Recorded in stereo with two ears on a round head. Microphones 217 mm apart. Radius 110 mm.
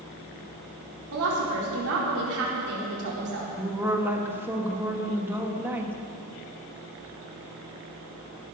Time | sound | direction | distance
1.1 | a woman speaking | 65° right (ahead or behind) | 4 m
3.6 | a woman speaking | 10° right (ahead or behind) | 1.7 m